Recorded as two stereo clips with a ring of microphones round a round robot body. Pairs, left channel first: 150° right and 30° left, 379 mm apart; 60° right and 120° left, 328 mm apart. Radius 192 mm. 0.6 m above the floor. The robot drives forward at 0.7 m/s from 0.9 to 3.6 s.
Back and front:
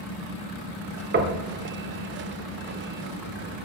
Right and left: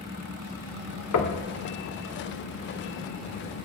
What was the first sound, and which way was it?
Knocking, 30° right.